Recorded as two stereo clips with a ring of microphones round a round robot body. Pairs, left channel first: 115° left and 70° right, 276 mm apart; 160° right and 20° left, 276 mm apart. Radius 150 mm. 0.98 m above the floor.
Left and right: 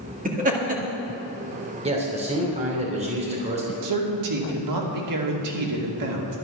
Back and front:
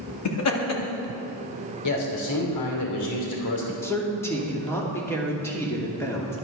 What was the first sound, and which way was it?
Laughter, 130° right.